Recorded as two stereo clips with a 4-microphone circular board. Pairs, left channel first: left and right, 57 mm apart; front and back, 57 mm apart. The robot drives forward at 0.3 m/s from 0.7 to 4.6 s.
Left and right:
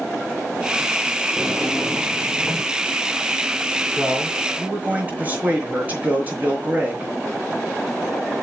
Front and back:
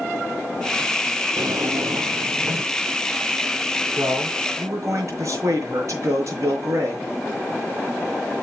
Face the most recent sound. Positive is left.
turn(degrees=-155)